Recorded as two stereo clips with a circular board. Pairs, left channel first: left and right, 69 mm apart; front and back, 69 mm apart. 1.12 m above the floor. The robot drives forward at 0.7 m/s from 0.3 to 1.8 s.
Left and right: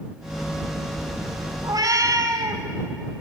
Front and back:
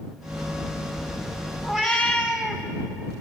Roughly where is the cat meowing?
Right.